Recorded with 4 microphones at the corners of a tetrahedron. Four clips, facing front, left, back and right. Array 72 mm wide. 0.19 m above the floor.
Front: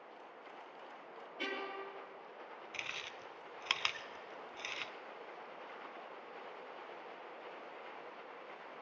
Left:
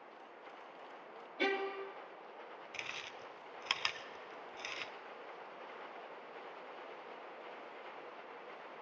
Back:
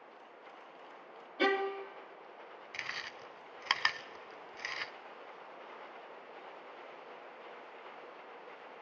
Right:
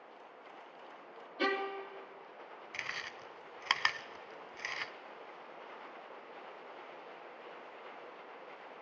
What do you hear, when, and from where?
1.4 s a violin: 155° right, 2.5 m
2.7 s chewing: 125° right, 0.6 m